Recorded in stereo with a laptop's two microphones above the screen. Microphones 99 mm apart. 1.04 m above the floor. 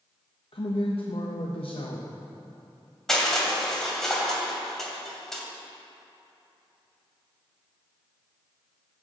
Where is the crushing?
5° left (ahead or behind), 2 m.